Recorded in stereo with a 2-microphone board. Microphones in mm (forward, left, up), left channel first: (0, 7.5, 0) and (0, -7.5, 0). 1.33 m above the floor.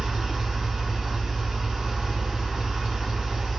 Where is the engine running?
50° right (ahead or behind), 1.9 m.